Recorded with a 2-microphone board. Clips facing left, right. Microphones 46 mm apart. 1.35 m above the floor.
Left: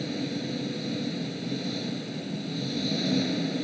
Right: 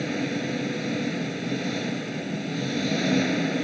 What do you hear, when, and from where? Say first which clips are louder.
0.0 s an engine running: right 4 dB; 55° right (ahead or behind)